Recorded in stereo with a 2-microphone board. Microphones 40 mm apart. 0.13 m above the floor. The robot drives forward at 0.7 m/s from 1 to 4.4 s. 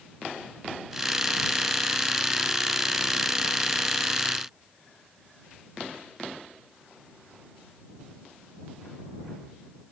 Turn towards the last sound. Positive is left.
No sound to turn to.